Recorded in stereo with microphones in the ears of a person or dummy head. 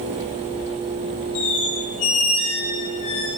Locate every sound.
1.4 s a squeak: 40° left (ahead or behind), 4.5 m